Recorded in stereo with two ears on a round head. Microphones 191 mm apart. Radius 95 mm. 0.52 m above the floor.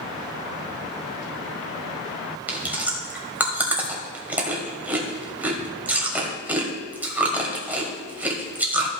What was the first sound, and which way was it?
Chewing, 5° right (ahead or behind).